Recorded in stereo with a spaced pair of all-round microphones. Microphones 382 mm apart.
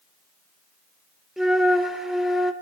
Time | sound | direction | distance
1.4 | a flute | centre (ahead or behind) | 0.8 m